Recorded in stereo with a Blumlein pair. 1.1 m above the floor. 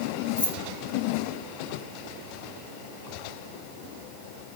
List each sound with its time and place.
0.4 s keys jangling: 65° left, 1.6 m